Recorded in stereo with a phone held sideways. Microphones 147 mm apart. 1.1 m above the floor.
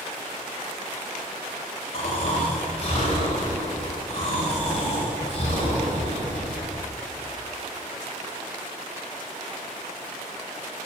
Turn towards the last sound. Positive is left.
turn(degrees=45)  # may be behind; listen again after turning